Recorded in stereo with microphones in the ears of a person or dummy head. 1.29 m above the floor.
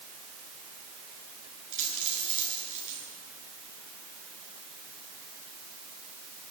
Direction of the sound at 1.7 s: 35° right (ahead or behind).